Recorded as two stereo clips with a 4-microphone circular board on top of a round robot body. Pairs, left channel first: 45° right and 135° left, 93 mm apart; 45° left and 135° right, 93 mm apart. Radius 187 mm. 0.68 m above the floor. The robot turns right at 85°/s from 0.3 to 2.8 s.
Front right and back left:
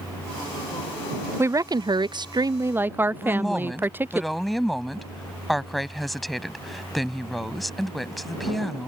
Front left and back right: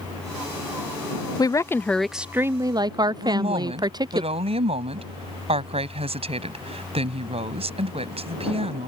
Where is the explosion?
I don't hear an explosion.